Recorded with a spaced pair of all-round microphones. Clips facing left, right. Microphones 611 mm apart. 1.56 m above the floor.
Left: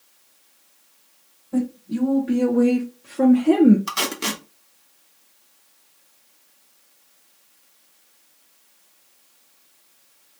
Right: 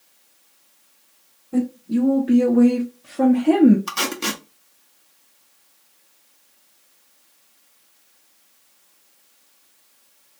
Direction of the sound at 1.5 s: Centre (ahead or behind).